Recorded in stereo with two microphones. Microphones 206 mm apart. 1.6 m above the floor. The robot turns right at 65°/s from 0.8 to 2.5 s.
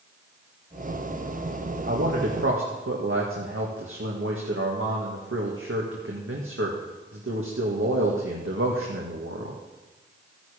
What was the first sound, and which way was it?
A man speaking, 125° right.